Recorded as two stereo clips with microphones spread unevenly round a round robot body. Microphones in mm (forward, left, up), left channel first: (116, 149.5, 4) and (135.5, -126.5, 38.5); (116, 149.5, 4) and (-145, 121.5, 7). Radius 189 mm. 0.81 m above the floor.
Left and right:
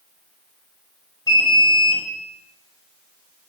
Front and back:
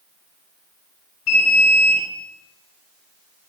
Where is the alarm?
20° left, 6.5 m.